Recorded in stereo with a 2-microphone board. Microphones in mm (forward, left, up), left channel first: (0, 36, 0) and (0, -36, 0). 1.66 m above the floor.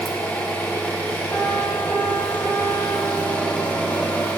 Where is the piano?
25° left (ahead or behind), 1.1 m.